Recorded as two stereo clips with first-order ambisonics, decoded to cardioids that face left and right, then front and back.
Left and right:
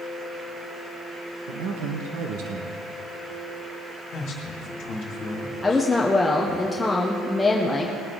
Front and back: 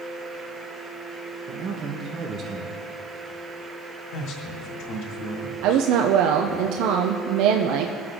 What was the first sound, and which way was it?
A man speaking, 120° right.